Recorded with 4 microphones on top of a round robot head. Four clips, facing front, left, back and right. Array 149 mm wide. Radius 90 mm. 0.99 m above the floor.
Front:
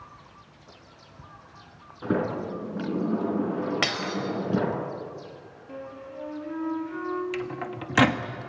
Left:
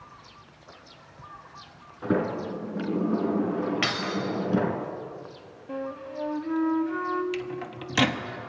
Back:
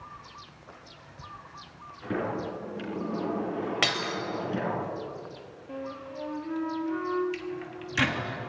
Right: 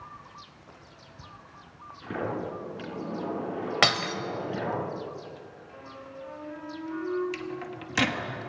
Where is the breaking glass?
90° right, 3.5 m.